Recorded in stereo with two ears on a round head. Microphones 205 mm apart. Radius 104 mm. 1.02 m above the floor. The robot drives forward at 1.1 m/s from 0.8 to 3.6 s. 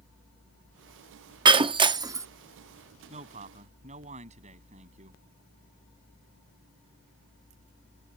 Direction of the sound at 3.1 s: 30° right (ahead or behind).